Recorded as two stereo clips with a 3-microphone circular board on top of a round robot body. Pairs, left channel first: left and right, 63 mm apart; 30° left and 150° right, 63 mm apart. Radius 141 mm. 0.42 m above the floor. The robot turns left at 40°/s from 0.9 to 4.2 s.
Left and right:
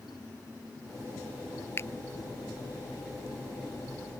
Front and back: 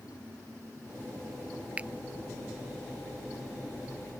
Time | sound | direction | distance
1.8 | a finger snap | 140° left | ?